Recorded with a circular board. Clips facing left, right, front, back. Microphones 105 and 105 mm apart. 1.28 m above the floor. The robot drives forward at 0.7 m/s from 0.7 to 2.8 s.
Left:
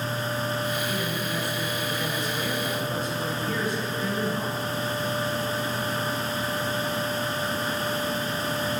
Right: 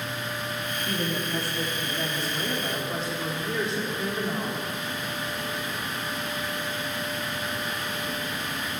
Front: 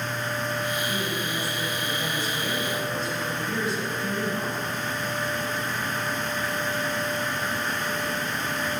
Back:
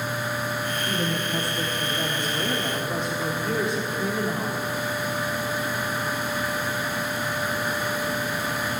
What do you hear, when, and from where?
0.9 s a woman speaking: 135° right, 2.5 m; by 4.6 s 150° right, 3.5 m